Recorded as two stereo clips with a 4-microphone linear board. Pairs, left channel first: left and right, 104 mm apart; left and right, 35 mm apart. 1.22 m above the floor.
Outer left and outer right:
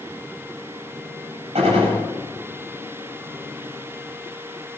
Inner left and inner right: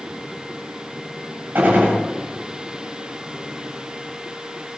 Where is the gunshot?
85° right, 8.5 m.